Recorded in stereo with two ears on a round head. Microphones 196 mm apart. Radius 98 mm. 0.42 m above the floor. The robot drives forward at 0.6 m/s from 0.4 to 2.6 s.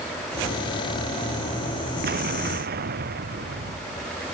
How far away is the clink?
No clink in this recording.